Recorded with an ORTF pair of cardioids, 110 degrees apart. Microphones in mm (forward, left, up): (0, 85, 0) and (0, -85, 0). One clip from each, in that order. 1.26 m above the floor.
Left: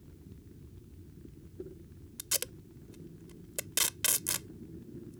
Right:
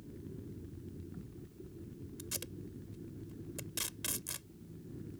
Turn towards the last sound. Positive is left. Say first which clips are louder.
# left 9 dB
turn(degrees=55)